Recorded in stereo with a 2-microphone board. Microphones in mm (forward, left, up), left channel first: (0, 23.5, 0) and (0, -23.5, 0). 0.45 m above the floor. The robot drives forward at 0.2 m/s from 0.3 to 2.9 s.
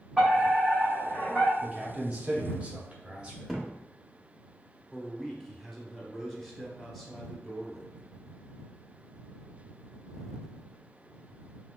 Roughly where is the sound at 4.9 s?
Centre.